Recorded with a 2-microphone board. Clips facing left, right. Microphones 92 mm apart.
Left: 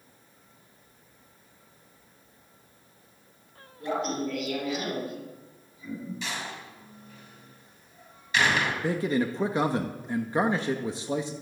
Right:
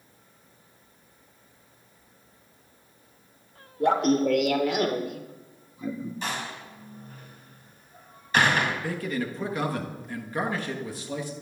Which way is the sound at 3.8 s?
65° right (ahead or behind).